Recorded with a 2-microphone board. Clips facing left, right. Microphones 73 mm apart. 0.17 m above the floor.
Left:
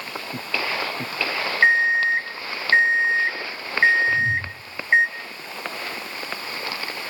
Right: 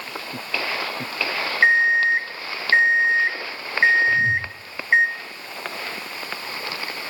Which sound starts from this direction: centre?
An alarm clock, at 1.6 s.